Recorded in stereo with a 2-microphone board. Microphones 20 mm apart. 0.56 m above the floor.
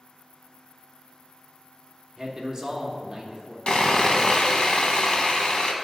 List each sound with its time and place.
2.2 s a man speaking: 30° right (ahead or behind), 1.1 m
3.7 s sawing: 60° left (ahead or behind), 0.7 m